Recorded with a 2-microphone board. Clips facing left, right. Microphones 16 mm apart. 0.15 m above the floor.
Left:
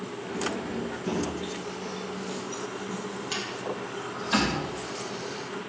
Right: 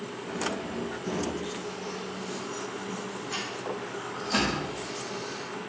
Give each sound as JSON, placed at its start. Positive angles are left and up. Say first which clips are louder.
{"t": 0.2, "sound": "keys jangling", "louder": "left 1 dB", "side_deg": 35, "distance_m": 2.5}